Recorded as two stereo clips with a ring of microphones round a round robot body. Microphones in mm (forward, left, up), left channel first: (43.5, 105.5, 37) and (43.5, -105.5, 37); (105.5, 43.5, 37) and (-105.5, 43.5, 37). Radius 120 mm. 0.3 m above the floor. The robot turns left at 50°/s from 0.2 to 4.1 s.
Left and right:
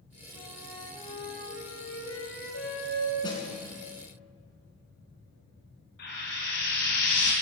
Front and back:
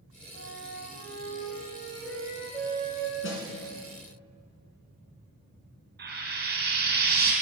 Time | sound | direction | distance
0.3 | a flute | 155° right | 4 m
3.2 | a snare drum | 25° left | 3 m
6.0 | frying | 140° left | 4 m